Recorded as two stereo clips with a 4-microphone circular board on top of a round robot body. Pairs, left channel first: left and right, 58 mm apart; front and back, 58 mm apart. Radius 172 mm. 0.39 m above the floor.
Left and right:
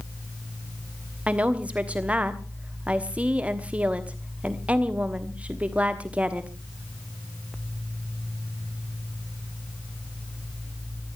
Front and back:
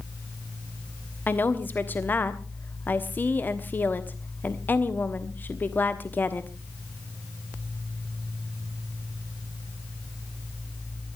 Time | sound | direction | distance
1.3 | a woman speaking | 35° right | 1.5 m